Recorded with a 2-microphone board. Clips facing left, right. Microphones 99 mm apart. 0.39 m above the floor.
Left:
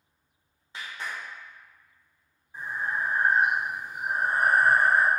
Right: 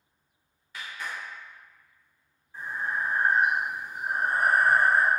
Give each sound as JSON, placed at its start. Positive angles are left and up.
{"t": 0.7, "sound": "a clap", "side_deg": 30, "distance_m": 0.9}
{"t": 2.5, "sound": "breathing", "side_deg": 20, "distance_m": 0.9}